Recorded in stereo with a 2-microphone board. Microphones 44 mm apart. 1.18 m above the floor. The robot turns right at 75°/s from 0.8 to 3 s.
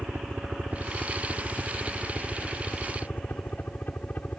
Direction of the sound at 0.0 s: 50° right (ahead or behind).